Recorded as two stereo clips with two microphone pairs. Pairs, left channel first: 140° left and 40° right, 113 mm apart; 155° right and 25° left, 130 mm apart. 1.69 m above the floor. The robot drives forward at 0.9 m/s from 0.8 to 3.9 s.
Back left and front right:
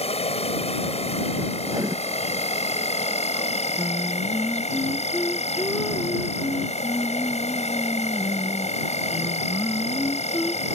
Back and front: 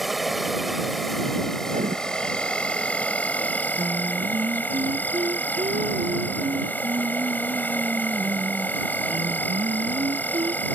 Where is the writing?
15° left.